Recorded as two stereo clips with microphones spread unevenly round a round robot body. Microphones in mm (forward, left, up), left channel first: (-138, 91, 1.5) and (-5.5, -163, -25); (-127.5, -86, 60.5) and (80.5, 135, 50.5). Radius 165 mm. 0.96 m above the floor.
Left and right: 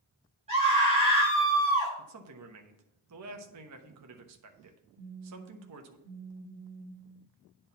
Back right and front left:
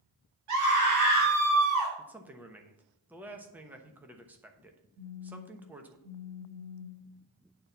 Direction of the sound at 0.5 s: 10° left.